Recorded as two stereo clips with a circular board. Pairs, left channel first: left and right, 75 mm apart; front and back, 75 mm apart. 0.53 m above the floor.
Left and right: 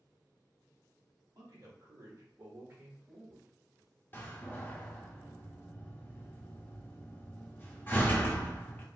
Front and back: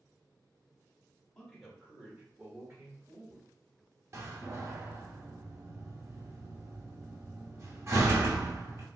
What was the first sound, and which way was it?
A man speaking, 85° right.